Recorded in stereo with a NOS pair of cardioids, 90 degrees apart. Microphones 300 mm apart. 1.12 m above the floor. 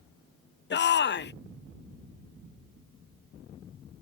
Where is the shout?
35° left.